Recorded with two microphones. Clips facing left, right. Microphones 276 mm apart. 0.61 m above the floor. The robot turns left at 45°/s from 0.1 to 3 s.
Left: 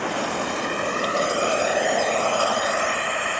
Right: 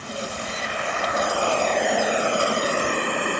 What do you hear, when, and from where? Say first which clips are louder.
0.0 s running water: left 6 dB; 80° left; by 3.4 s 50° right